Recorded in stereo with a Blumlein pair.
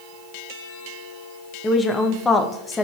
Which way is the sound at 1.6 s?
15° left.